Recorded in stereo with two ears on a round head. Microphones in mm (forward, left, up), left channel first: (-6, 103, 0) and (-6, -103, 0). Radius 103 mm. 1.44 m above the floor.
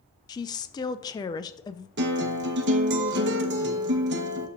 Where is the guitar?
50° right (ahead or behind), 0.9 m.